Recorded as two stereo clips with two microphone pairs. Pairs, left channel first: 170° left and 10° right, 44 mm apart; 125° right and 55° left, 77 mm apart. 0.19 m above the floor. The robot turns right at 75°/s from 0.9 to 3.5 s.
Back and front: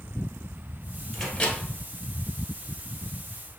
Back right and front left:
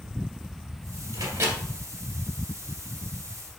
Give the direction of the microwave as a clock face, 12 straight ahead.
9 o'clock.